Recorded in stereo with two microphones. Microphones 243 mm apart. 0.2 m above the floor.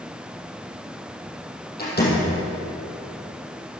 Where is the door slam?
40° left (ahead or behind), 5 m.